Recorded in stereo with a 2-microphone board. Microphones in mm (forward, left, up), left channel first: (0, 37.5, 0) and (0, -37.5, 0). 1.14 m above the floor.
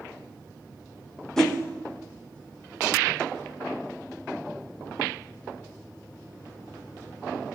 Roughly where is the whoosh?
Centre.